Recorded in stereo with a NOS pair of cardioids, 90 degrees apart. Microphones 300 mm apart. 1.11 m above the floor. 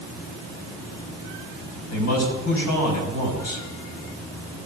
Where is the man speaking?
60° left, 5 m.